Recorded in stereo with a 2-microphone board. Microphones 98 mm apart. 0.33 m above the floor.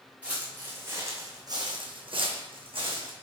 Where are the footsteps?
10° right (ahead or behind), 1.2 m; by 3.1 s 60° right (ahead or behind), 1.0 m.